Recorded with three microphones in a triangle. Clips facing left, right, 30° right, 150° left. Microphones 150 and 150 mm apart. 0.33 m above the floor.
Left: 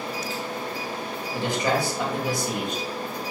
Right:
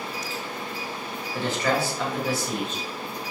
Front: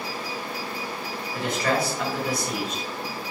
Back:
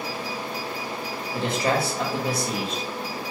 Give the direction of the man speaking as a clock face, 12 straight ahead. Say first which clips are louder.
Even, back 1 dB; 7 o'clock.